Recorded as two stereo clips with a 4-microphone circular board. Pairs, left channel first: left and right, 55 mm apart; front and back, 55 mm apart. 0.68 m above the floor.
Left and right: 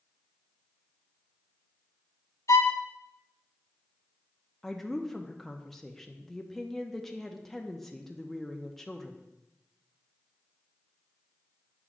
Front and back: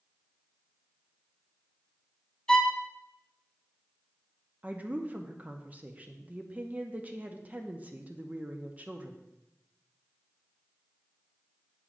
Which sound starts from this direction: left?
A violin, at 2.5 s.